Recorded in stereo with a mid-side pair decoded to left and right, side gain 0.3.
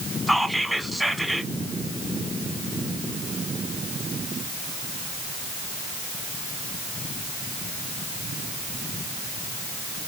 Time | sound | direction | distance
0.3 | whispering | 5° right | 1.5 m